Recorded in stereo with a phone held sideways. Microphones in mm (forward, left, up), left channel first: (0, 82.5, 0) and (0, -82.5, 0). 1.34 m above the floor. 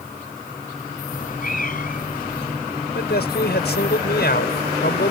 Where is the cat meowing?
60° left (ahead or behind).